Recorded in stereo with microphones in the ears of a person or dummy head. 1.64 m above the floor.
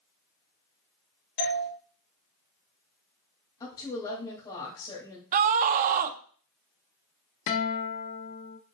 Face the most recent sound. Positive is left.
turn(degrees=45)  # may be behind; listen again after turning